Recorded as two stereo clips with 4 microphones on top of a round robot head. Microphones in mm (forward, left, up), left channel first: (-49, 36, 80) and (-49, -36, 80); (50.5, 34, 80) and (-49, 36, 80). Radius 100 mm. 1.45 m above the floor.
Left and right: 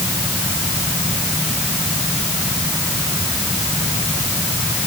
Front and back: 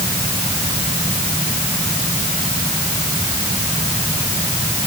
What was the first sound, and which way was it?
Only background noise.